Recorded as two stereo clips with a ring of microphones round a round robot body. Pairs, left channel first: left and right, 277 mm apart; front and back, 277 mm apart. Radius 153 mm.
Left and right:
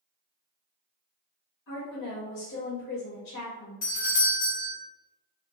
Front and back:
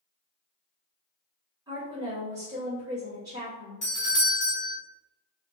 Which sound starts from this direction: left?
A woman speaking, at 1.7 s.